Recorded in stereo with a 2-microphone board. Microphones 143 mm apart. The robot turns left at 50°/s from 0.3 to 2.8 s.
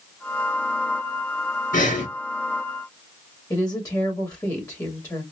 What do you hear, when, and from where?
1.7 s breathing: 70° left (ahead or behind), 3 m; by 2.1 s 65° left (ahead or behind), 3 m
3.5 s a woman speaking: 25° left (ahead or behind), 2 m